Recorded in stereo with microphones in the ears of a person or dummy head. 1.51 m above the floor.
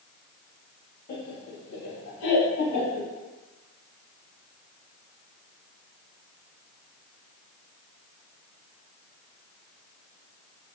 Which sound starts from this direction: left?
Laughter, at 1.1 s.